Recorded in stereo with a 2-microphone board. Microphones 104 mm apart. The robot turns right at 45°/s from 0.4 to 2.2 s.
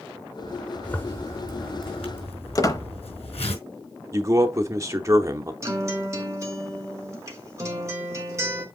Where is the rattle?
I don't hear a rattle.